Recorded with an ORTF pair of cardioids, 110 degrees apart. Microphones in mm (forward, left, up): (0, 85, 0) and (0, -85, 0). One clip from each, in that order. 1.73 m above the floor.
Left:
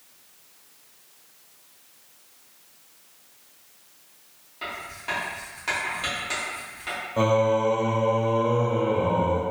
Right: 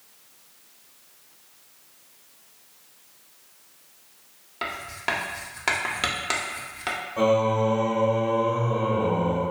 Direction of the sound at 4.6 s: 50° right.